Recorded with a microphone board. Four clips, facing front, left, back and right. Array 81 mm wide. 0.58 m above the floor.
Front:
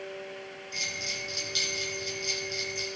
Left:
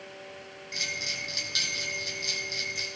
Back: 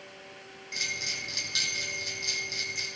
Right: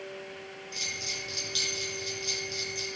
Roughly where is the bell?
Behind left.